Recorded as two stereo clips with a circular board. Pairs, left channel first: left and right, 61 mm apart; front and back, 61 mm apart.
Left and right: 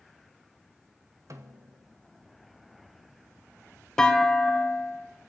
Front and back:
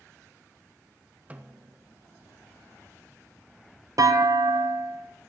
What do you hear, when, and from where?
1.3 s a snare drum: 115° right, 1.0 m
4.0 s a clunk: 170° left, 0.7 m